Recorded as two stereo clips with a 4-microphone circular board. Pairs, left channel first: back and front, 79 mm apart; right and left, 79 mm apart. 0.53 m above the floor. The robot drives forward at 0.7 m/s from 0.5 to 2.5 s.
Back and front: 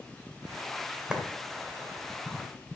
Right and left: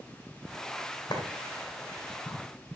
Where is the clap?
80° right, 1.6 m; by 1.2 s 85° right, 1.6 m.